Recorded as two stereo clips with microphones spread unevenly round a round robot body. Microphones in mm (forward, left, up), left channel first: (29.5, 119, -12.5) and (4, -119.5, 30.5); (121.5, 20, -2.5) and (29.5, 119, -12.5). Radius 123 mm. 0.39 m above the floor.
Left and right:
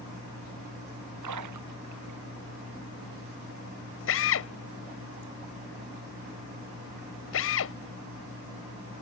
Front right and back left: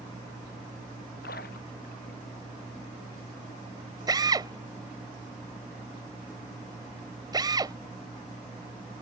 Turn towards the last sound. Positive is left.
turn(degrees=80)